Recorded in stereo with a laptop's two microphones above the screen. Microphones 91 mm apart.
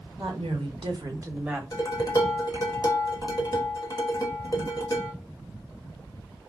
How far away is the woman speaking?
About 1.1 m.